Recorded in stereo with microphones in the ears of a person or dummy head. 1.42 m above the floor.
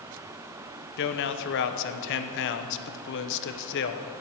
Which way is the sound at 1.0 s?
65° left (ahead or behind).